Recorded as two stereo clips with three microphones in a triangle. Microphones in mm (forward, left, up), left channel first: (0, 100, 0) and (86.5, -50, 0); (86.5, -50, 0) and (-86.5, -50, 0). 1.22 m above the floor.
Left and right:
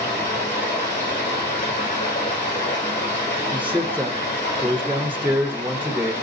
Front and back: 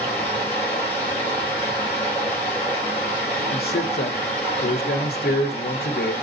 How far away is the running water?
About 4.5 m.